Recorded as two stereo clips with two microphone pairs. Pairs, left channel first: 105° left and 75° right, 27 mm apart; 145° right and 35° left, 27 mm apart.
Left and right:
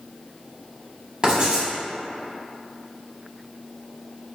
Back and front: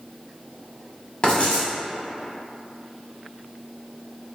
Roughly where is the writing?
Behind right.